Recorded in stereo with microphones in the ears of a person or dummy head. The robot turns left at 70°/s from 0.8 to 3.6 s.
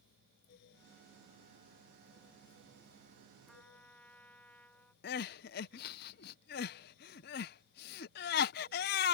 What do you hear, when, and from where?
3.5 s a trumpet: centre (ahead or behind); by 4.9 s 5° left (ahead or behind)
5.0 s crying: 60° left (ahead or behind)